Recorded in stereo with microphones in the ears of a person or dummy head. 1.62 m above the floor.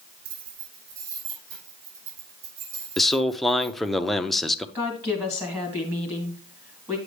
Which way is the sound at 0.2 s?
85° right.